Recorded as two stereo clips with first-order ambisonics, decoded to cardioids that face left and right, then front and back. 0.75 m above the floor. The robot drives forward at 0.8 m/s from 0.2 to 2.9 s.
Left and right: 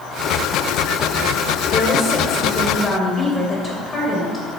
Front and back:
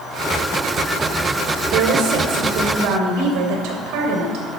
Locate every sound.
1.7 s a woman speaking: 150° left, 1.8 m; by 4.4 s 160° left, 2.5 m